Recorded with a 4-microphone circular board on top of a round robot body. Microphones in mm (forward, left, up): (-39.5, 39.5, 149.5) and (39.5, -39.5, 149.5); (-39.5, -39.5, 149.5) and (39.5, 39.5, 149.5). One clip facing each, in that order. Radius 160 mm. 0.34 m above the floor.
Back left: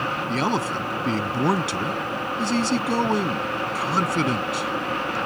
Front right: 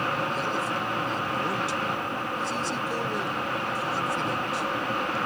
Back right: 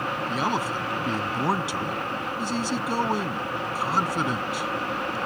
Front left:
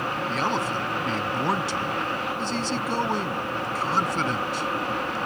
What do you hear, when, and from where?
0.3 s a man speaking: 145° left